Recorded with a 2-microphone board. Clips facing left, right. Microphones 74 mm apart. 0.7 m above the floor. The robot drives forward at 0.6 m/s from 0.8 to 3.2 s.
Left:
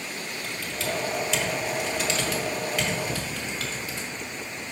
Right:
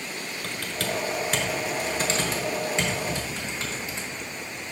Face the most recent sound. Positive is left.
turn(degrees=-25)  # may be behind; listen again after turning